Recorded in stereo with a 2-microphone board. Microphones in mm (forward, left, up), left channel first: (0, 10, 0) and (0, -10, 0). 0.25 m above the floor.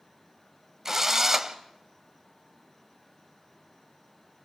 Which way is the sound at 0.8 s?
25° right (ahead or behind).